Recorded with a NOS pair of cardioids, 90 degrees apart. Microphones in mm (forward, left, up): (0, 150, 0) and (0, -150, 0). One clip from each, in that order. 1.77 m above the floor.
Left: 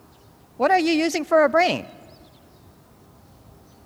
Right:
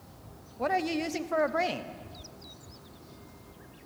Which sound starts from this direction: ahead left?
A woman speaking, at 0.6 s.